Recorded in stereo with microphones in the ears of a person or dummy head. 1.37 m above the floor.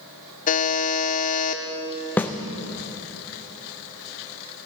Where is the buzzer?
40° left (ahead or behind), 0.7 m.